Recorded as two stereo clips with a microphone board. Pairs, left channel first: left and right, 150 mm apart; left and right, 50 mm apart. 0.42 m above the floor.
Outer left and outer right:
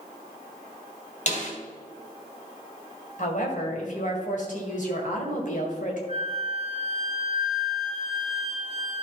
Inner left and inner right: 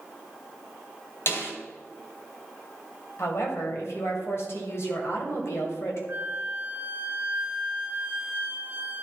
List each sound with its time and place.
1.3 s a snare drum: 55° left (ahead or behind), 2 m
3.2 s a woman speaking: 60° left (ahead or behind), 2 m
6.1 s a flute: 40° right (ahead or behind), 0.8 m